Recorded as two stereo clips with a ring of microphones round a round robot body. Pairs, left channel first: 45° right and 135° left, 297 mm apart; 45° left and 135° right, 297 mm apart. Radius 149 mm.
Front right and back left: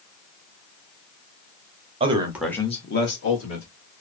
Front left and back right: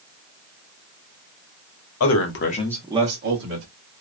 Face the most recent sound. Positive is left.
turn(degrees=-90)